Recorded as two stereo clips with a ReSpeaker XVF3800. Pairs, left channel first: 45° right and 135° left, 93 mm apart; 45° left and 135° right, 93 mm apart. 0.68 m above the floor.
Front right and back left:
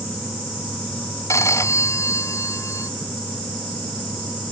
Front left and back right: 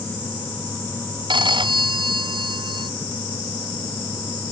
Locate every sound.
1.3 s a phone ringing: 105° right